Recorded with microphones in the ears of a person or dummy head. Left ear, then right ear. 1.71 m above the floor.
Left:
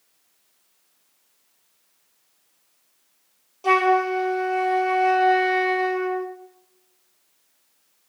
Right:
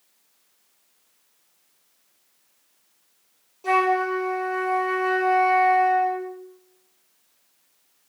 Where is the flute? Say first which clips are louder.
Left 2 dB; 25° left (ahead or behind), 0.8 m.